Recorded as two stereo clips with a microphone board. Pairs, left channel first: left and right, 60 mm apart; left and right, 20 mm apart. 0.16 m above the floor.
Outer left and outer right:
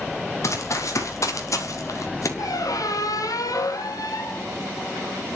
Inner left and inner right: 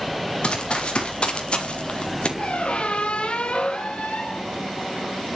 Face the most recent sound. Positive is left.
turn(degrees=70)  # may be behind; listen again after turning